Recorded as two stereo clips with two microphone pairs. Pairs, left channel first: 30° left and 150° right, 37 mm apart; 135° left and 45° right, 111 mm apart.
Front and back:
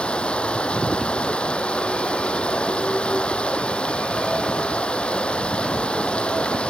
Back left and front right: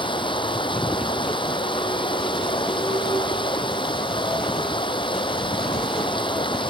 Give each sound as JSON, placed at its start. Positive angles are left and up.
{"t": 0.0, "sound": "running water", "azimuth_deg": 90}